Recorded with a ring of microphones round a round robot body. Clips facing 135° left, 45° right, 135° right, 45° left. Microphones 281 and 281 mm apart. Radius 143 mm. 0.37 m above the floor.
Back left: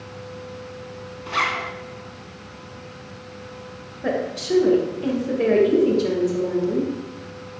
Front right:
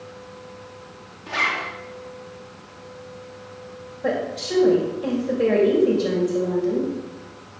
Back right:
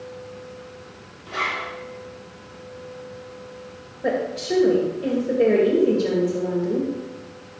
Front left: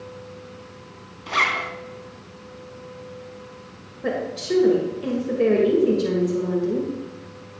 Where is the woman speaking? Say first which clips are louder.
Back left 1 dB, back right 2 dB; 110° left, 2 m.